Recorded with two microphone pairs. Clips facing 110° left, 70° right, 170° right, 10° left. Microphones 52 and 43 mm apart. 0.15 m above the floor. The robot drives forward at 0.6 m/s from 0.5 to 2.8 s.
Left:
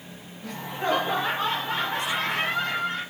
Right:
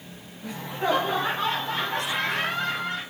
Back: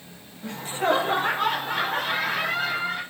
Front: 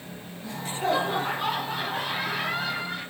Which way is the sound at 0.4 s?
155° right.